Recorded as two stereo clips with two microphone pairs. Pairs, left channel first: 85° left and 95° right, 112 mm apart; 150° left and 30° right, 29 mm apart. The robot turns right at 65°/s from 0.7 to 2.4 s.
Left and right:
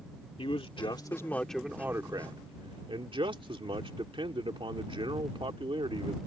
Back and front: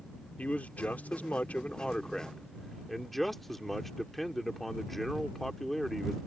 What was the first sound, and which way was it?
A man speaking, 120° left.